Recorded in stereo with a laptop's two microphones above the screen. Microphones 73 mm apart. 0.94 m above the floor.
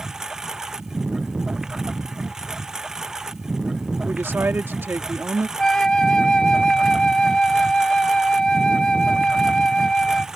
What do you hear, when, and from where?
0.0 s a lawn mower: 5° right (ahead or behind)
4.0 s a woman speaking: 30° right (ahead or behind)
5.6 s a flute: 10° left (ahead or behind)